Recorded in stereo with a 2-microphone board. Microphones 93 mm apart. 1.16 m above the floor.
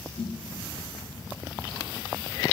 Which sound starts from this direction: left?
A snare drum, at 0.2 s.